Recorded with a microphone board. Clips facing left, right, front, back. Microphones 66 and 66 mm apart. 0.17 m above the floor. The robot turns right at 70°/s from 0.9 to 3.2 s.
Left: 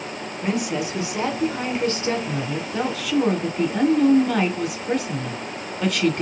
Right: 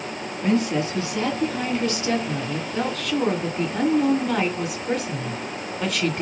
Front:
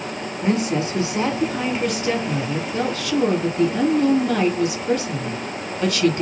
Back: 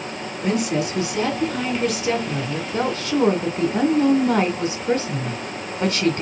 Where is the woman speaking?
25° left, 1.3 m; by 6.2 s 175° right, 1.3 m.